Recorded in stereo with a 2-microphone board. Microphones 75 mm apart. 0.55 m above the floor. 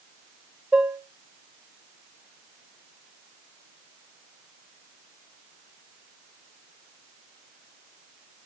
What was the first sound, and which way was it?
Dishes clattering, 15° right (ahead or behind).